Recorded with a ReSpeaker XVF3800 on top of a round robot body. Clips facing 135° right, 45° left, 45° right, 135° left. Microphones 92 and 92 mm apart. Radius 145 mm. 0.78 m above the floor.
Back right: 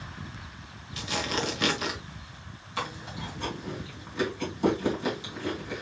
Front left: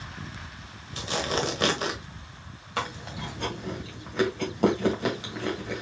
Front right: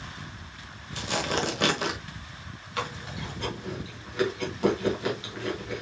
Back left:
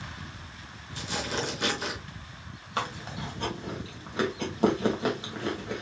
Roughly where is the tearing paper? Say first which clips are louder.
Front left 3 dB, front right 4 dB; ahead.